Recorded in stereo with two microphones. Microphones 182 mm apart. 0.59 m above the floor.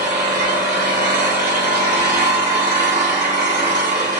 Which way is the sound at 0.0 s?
50° right (ahead or behind).